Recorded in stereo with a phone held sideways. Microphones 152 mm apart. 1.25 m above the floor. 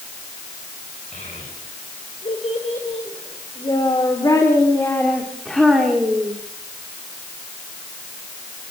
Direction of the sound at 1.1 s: 50° left (ahead or behind).